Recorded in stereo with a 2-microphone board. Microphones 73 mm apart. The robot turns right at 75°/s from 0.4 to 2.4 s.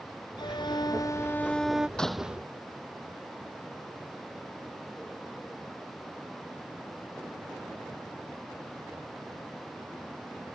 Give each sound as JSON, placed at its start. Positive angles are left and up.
{"t": 0.4, "sound": "a violin", "azimuth_deg": 80}
{"t": 2.0, "sound": "a door slam", "azimuth_deg": 170}